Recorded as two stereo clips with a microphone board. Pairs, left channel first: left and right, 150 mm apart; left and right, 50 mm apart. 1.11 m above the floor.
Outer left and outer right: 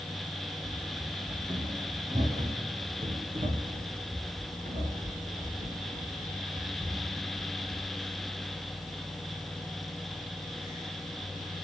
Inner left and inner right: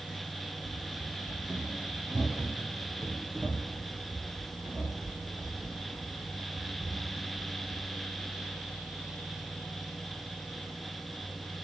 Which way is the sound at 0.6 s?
15° right (ahead or behind).